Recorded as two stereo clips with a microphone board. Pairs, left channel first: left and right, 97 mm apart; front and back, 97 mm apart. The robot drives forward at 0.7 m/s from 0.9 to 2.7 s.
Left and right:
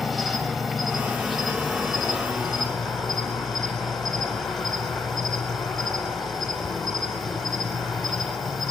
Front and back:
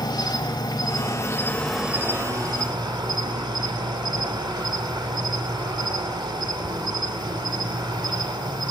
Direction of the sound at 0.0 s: Straight ahead.